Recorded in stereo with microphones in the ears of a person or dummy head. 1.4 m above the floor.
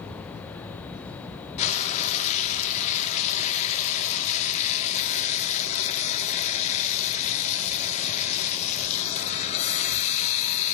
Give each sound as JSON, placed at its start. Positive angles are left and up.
{"t": 1.6, "sound": "frying", "side_deg": 35, "distance_m": 1.4}